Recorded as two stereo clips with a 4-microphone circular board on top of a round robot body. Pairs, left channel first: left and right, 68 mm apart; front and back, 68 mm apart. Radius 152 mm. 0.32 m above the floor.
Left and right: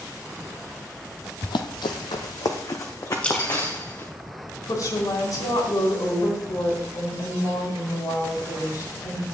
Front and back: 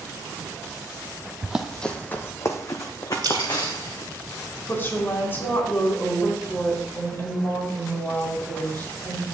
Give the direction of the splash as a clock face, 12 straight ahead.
7 o'clock.